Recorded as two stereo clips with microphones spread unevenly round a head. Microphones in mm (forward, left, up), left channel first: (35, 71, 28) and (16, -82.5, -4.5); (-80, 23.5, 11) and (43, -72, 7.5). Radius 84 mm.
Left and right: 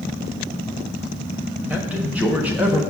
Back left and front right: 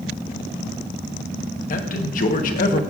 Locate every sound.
1.7 s a man speaking: 175° left, 1.0 m